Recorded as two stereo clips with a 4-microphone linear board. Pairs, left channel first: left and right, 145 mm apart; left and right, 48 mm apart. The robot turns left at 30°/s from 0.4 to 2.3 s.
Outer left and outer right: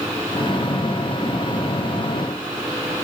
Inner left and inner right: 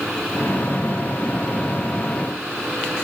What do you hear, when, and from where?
Only background noise.